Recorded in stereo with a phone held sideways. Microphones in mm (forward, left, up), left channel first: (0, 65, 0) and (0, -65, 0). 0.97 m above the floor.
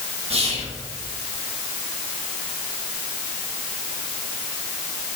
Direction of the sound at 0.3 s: 50° right (ahead or behind).